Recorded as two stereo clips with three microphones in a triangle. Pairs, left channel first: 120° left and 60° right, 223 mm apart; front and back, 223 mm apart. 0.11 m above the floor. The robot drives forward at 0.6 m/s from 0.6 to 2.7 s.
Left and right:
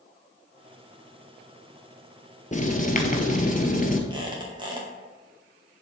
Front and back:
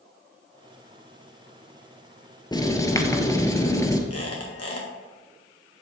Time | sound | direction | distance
2.5 | writing | 70° left | 1.4 m
4.1 | a squeak | 10° left | 3.5 m